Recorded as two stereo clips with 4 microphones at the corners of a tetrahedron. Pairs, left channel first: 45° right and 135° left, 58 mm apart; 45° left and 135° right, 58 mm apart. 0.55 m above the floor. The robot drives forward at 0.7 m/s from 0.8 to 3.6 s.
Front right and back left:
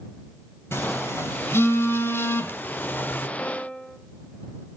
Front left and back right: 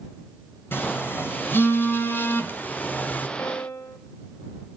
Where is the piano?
25° left, 2 m; by 4.0 s 30° left, 2 m.